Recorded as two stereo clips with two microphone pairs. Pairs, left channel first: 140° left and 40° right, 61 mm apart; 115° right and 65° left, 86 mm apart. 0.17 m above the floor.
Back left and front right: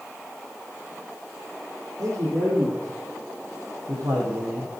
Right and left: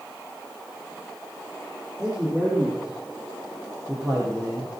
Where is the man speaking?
5° right, 6.5 m; by 4.7 s straight ahead, 4.5 m.